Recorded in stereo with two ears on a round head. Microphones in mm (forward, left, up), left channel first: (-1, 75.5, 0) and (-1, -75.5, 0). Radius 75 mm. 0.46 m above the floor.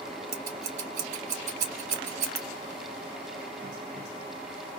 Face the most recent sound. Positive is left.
turn(degrees=-45)  # may be behind; listen again after turning